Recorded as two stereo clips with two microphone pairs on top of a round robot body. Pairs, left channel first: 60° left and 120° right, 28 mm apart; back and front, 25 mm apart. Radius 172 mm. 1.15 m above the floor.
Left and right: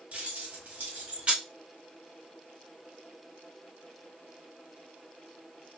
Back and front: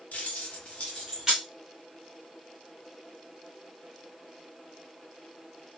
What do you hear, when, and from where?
0.1 s keys jangling: 155° right, 1.3 m; by 1.4 s 60° right, 0.6 m